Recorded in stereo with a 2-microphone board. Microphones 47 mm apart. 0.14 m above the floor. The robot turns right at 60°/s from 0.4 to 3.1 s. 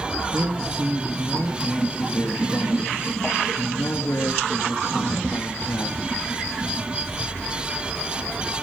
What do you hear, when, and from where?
0.3 s a man speaking: 65° right, 2.5 m; by 6.0 s 95° left, 2.5 m